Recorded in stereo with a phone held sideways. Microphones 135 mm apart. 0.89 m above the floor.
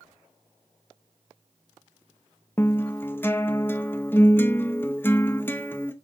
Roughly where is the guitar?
Centre.